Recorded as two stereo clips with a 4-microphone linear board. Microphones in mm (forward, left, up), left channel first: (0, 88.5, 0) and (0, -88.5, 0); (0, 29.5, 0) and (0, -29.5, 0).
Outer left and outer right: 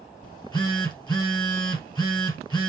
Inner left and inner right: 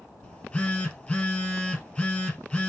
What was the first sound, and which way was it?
A phone buzzing, 25° left (ahead or behind).